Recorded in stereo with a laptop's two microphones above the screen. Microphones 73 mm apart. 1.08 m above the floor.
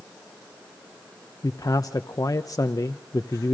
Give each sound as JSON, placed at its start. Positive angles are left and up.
{"t": 1.4, "sound": "a man speaking", "side_deg": 55, "distance_m": 0.6}